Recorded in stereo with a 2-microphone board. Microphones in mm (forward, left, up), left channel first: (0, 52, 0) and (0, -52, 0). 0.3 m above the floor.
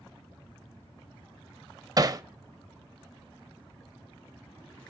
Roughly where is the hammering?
Right.